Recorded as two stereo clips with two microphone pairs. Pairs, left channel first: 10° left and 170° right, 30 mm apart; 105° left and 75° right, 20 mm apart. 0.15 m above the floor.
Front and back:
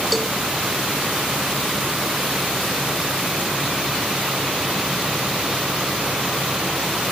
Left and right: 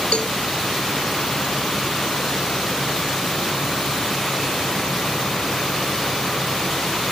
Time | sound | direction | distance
0.1 | a cowbell | 95° left | 0.9 m